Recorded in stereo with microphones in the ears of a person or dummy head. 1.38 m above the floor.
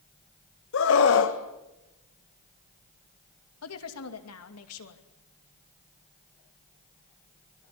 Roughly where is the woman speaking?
Left.